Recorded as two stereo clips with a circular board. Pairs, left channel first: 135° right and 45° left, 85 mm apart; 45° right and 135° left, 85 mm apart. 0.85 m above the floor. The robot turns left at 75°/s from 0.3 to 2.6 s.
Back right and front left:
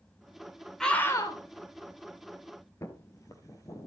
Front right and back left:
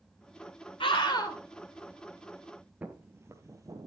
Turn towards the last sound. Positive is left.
turn(degrees=180)